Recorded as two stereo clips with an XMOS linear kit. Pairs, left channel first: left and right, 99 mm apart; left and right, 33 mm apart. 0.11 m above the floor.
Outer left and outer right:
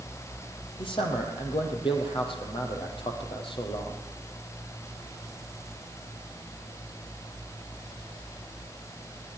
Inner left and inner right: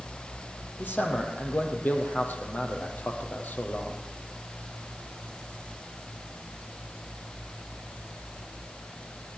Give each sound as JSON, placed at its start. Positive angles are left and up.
{"t": 0.8, "sound": "a man speaking", "side_deg": 60, "distance_m": 4.0}